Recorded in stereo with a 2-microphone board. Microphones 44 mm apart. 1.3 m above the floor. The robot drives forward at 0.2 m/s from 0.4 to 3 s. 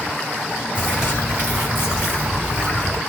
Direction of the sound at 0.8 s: 50° left (ahead or behind).